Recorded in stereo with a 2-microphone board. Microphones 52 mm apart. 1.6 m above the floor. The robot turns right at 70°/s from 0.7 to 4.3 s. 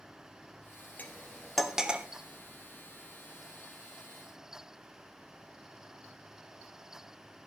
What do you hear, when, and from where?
1.0 s cutlery clinking: 30° left (ahead or behind), 1.3 m; by 2.1 s 25° right (ahead or behind), 1.3 m